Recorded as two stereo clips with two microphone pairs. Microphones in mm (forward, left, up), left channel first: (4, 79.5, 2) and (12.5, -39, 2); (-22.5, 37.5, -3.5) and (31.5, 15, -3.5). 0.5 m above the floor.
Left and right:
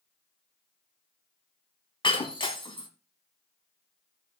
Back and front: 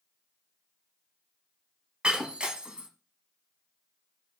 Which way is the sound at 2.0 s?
50° left.